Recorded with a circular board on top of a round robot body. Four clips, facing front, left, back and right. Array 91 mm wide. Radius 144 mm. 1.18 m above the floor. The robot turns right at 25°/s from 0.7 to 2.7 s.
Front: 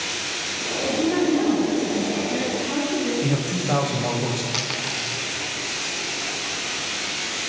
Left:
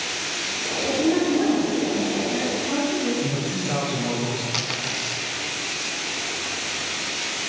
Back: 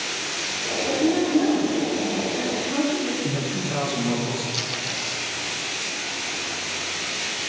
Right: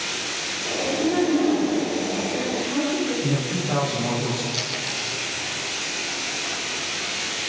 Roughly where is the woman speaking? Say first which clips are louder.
Left 1 dB, front 1 dB; ahead.